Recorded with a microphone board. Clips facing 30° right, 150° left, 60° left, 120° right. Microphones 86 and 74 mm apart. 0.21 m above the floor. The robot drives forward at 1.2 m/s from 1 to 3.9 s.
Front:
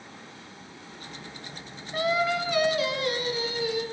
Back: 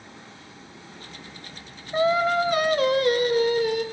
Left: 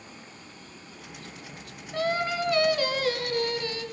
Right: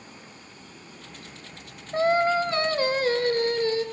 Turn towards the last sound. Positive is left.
turn(degrees=-175)